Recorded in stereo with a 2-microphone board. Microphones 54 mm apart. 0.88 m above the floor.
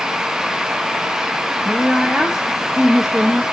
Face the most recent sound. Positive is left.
turn(degrees=-10)  # may be behind; listen again after turning